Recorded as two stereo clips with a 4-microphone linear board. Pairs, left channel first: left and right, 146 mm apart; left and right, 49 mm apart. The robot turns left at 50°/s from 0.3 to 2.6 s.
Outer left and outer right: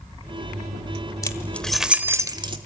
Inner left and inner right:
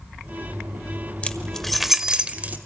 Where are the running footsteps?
I don't hear running footsteps.